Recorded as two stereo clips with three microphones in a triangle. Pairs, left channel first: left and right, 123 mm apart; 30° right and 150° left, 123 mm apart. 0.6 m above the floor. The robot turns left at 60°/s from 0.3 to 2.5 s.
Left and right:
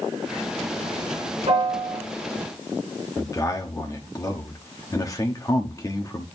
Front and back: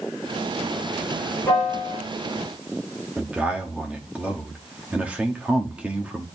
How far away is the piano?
About 6 m.